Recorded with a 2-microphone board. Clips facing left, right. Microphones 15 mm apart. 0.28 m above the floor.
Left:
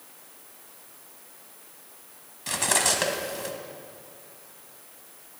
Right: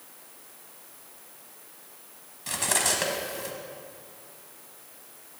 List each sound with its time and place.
2.5 s cutlery clinking: 10° left (ahead or behind), 1.3 m